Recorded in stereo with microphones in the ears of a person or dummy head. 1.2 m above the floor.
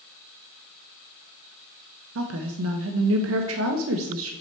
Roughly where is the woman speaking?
Right.